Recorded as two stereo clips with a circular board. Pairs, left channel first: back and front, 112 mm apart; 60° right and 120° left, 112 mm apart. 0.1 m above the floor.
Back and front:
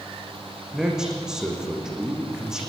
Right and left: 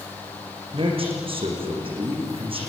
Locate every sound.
0.7 s a man speaking: 85° left, 6.5 m